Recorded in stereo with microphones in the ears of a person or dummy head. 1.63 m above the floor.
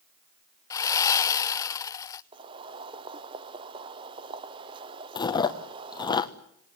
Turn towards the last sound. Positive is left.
turn(degrees=20)  # may be behind; listen again after turning